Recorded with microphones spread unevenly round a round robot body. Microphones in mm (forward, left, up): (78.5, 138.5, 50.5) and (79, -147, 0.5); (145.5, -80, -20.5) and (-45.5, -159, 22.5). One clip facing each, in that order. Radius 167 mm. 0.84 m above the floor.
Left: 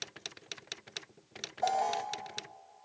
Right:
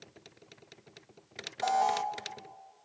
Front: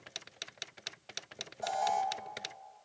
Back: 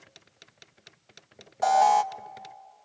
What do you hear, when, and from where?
1.6 s an alarm: 155° right, 0.5 m